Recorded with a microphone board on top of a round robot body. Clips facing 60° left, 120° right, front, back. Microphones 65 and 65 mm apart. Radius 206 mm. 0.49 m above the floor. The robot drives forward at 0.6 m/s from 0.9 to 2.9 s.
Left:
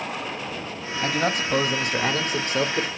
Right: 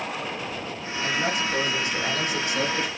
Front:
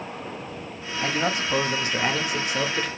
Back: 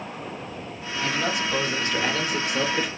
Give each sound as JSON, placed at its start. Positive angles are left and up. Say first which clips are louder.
{"t": 1.0, "sound": "a man speaking", "louder": "left 2 dB, front 1 dB", "azimuth_deg": 45, "distance_m": 1.7}